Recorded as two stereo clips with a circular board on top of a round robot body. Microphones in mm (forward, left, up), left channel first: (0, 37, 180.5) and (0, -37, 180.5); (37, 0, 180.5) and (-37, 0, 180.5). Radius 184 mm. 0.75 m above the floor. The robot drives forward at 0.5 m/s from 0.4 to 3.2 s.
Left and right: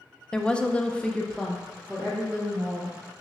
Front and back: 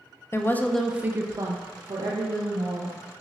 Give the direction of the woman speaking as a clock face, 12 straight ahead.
11 o'clock.